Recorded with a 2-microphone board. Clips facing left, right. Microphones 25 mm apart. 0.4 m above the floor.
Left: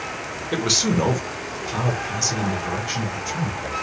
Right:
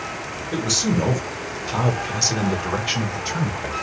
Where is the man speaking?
35° left (ahead or behind), 1.1 m; by 3.7 s 55° right (ahead or behind), 2 m.